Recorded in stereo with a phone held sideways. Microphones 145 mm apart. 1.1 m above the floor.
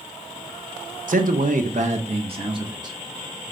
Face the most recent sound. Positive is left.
turn(degrees=-30)  # may be behind; listen again after turning